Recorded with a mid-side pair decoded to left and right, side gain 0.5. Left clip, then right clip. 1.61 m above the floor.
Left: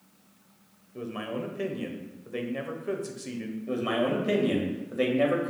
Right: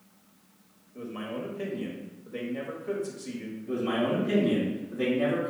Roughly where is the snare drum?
No snare drum in this recording.